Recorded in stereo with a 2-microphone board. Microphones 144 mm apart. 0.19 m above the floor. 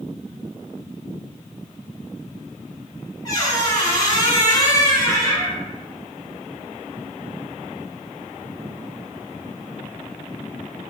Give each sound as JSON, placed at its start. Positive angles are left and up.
{"t": 3.2, "sound": "a squeak", "side_deg": 25, "distance_m": 1.1}